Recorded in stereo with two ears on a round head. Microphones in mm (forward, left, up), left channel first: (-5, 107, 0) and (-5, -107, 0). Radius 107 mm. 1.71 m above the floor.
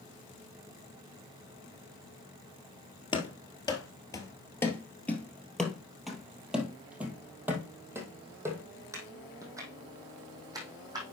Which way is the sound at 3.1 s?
20° left (ahead or behind).